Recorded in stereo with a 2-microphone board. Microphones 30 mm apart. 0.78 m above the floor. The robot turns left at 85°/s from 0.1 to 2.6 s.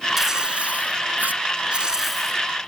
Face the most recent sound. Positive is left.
turn(degrees=145)